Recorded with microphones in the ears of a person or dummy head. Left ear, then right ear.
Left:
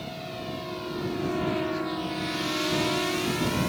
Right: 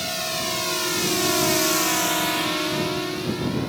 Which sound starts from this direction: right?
A drone, at 0.0 s.